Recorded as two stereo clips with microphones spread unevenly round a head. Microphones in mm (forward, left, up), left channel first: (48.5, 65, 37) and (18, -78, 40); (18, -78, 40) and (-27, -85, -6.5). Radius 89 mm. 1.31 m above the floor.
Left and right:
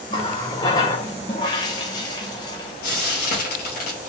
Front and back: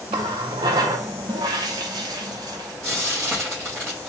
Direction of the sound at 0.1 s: 145° left.